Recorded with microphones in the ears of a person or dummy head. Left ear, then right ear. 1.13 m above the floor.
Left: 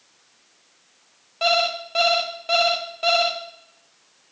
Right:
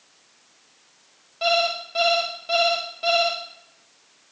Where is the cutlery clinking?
No cutlery clinking in this recording.